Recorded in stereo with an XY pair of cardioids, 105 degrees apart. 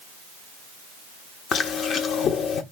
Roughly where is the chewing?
Ahead left.